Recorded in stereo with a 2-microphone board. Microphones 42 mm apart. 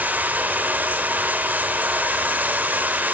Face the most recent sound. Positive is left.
turn(degrees=-40)  # may be behind; listen again after turning